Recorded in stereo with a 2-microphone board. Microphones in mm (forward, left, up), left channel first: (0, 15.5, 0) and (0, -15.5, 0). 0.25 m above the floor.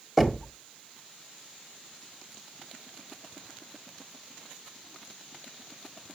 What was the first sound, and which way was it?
Knocking, 5° left (ahead or behind).